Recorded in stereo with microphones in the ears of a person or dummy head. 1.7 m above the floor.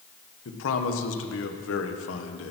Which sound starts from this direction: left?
A man speaking, at 0.5 s.